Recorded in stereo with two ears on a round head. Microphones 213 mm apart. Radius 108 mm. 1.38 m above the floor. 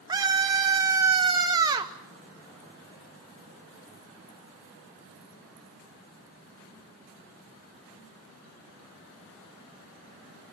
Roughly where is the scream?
Centre.